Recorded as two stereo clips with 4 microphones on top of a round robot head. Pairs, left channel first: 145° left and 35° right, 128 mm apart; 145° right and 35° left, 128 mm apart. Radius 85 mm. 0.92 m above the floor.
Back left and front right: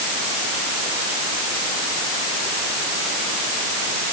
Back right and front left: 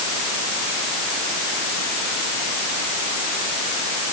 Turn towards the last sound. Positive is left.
No sound to turn to.